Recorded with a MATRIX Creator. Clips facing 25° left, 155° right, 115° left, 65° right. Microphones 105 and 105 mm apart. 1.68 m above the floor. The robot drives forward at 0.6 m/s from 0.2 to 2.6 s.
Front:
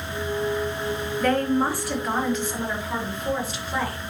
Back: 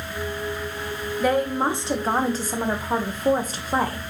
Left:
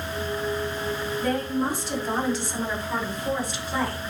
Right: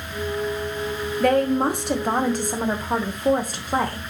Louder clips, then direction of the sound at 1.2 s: Even, right 8 dB; 75° right.